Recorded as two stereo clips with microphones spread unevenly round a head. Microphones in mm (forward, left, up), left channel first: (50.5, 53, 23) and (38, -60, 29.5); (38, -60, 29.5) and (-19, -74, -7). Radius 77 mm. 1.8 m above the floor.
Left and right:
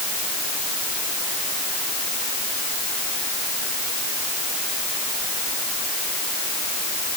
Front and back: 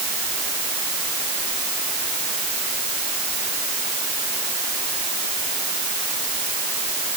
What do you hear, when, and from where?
Only background noise.